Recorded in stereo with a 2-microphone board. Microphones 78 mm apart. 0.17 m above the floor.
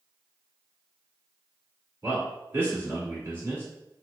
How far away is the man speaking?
About 1.6 m.